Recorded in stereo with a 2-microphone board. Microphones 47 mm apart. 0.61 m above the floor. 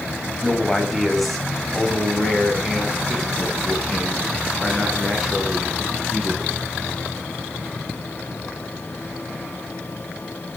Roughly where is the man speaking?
Centre.